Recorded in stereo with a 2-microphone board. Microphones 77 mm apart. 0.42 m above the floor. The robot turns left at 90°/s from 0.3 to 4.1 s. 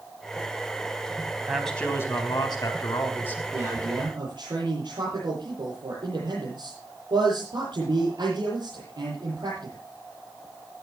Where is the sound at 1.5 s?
170° right, 4 m; by 3.4 s 15° left, 4 m.